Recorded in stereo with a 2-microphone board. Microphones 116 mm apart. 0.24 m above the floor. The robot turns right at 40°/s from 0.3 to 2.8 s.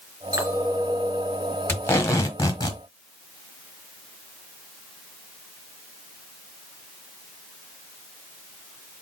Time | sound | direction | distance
0.3 | a clink | 40° right | 2.5 m
1.7 | tape being pulled | 35° left | 1.2 m